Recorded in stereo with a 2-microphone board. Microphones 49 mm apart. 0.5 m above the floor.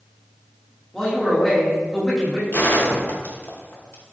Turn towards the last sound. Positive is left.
turn(degrees=50)  # may be behind; listen again after turning